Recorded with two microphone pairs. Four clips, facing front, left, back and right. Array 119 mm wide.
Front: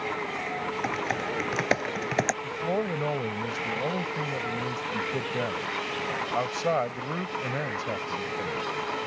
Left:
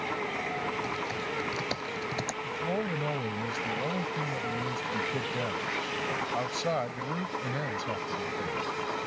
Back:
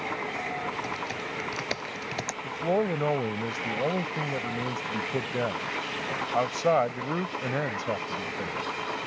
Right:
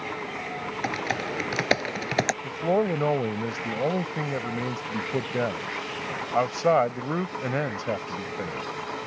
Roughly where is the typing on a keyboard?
Ahead right.